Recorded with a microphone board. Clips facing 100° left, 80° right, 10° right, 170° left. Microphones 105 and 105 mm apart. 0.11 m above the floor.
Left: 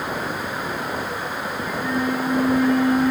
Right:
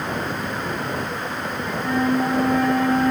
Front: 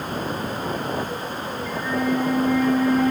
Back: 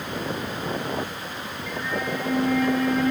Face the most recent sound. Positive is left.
turn(degrees=-90)